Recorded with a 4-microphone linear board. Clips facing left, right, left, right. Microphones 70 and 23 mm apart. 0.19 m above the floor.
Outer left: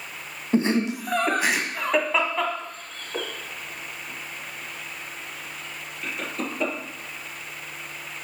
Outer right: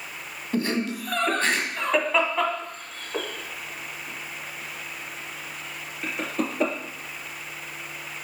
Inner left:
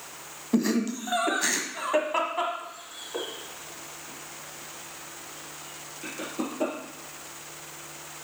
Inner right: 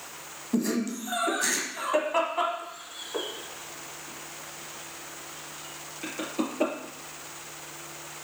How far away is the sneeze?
I don't hear a sneeze.